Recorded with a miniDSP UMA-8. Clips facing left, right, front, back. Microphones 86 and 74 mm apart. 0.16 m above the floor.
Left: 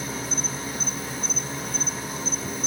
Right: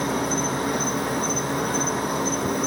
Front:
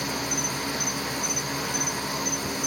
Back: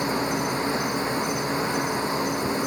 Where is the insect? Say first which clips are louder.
Right 8 dB, back 5 dB; 120° right, 0.8 m.